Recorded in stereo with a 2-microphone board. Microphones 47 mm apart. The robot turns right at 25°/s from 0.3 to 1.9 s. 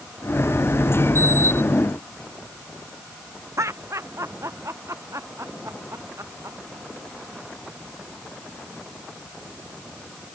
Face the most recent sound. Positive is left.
turn(degrees=-80)